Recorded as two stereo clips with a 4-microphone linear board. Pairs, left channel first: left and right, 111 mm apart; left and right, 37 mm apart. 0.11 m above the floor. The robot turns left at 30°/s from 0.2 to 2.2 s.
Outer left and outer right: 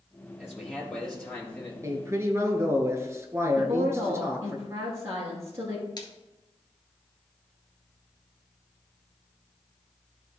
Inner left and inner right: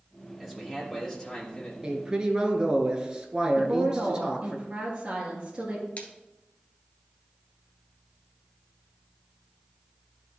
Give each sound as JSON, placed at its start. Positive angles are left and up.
{"t": 0.4, "sound": "a man speaking", "azimuth_deg": -165, "distance_m": 2.5}
{"t": 1.8, "sound": "a man speaking", "side_deg": -30, "distance_m": 1.3}
{"t": 3.6, "sound": "a woman speaking", "side_deg": -30, "distance_m": 2.0}
{"t": 6.0, "sound": "a splash", "side_deg": 45, "distance_m": 1.2}